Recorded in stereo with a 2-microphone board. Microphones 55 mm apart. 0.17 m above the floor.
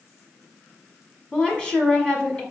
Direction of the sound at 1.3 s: 15° left (ahead or behind).